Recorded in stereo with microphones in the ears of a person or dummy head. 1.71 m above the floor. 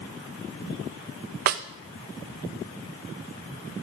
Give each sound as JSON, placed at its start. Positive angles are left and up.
{"t": 1.5, "sound": "a snare drum", "side_deg": -45, "distance_m": 0.6}